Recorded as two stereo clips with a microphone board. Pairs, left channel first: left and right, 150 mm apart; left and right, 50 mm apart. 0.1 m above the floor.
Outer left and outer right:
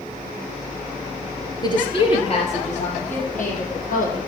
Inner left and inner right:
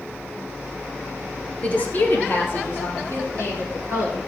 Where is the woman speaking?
30° left (ahead or behind), 2 m; by 4.2 s 70° left (ahead or behind), 5 m.